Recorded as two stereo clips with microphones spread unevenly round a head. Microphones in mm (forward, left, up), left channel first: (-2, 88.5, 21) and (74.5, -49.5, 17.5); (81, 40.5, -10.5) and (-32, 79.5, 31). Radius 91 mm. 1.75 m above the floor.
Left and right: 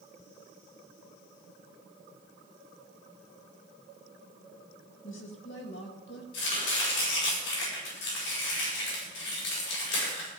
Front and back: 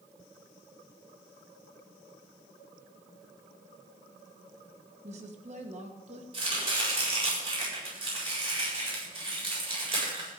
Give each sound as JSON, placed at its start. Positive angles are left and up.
{"t": 5.0, "sound": "a woman speaking", "azimuth_deg": 145, "distance_m": 2.5}
{"t": 6.3, "sound": "chopping", "azimuth_deg": 115, "distance_m": 8.0}